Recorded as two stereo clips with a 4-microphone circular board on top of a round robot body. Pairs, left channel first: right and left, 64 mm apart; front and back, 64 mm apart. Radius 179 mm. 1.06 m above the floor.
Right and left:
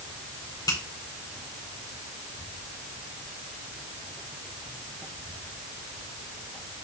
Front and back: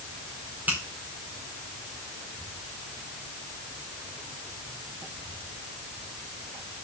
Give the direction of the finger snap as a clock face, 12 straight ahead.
4 o'clock.